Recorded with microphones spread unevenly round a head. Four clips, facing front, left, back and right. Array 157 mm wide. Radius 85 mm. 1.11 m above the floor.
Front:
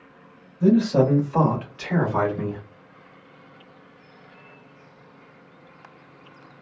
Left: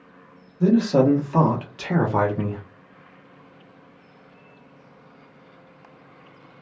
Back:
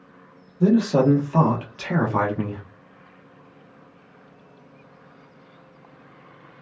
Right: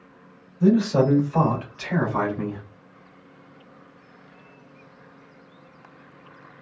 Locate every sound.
0.6 s a man speaking: 150° left, 1.4 m; by 2.6 s 75° left, 1.0 m